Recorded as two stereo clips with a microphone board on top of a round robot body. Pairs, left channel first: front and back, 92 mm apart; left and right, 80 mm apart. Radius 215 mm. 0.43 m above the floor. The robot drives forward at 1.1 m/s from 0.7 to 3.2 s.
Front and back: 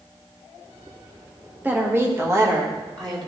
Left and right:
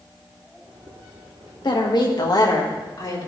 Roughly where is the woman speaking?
Left.